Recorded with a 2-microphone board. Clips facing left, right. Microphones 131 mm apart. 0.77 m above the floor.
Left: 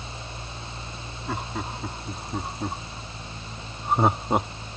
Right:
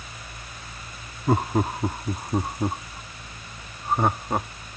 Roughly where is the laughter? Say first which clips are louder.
Right 10 dB; right.